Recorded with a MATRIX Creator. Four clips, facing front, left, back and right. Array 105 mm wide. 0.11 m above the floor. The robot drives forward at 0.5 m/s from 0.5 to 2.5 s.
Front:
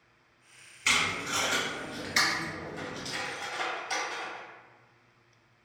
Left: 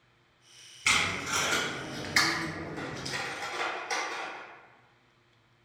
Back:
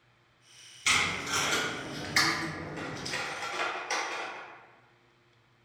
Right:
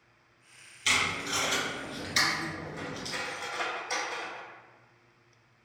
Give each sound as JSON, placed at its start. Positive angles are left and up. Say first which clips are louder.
{"t": 0.8, "sound": "tape being pulled", "louder": "left 1 dB, even", "azimuth_deg": 65, "distance_m": 1.9}
{"t": 2.8, "sound": "cutlery clinking", "louder": "left 1 dB, even", "azimuth_deg": 170, "distance_m": 1.1}